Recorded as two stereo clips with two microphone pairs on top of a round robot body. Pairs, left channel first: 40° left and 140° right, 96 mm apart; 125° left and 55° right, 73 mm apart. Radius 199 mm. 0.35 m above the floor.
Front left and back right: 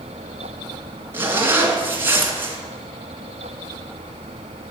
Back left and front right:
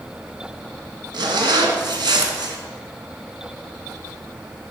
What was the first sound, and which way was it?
A zipper, 70° right.